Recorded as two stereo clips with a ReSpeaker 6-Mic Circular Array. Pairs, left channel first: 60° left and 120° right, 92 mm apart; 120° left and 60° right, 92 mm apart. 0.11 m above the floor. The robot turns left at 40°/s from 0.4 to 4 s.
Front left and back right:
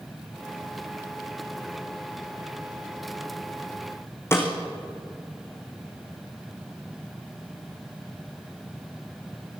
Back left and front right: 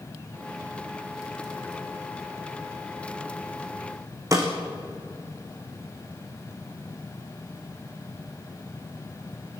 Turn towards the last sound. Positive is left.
turn(degrees=-5)